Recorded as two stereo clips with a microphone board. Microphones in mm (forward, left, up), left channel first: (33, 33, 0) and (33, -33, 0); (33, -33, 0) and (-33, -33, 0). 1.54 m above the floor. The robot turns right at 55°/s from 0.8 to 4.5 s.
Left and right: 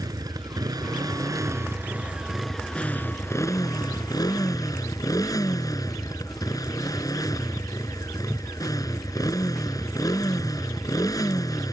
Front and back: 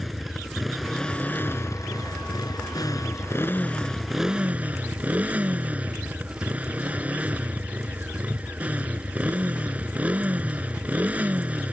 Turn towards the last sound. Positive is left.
turn(degrees=115)